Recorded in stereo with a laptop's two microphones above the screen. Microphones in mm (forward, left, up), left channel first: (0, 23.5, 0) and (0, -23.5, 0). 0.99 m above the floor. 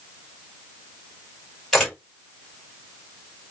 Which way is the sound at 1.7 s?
Centre (ahead or behind).